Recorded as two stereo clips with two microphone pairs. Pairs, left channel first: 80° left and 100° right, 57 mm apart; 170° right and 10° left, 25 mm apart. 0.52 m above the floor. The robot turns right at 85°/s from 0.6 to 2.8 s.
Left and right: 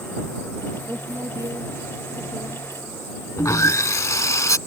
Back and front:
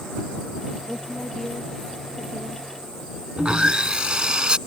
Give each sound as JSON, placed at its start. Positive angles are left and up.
{"t": 0.9, "sound": "a woman speaking", "azimuth_deg": -145}
{"t": 3.4, "sound": "sawing", "azimuth_deg": 60}